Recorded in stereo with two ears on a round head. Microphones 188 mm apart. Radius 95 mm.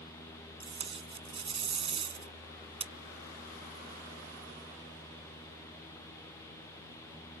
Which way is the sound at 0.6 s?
30° right (ahead or behind).